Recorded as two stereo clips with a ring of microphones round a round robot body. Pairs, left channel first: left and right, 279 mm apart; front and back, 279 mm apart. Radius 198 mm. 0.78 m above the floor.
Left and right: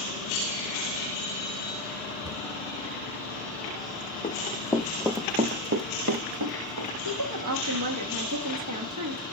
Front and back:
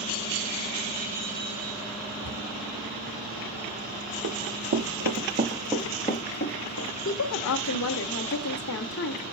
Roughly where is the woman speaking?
Ahead right.